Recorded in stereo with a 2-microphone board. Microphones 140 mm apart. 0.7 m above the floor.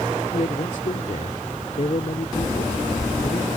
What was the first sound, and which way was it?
A man speaking, 60° left (ahead or behind).